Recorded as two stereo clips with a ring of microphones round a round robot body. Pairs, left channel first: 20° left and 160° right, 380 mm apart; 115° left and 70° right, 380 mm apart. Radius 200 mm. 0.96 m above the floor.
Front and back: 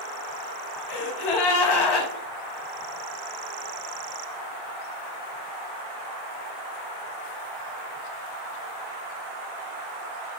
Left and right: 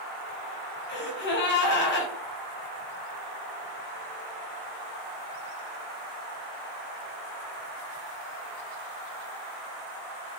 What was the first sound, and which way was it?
A gasp, 50° left.